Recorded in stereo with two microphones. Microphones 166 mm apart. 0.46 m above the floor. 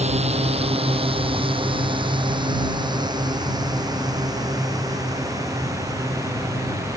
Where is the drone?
40° right (ahead or behind); by 7.0 s 20° right (ahead or behind).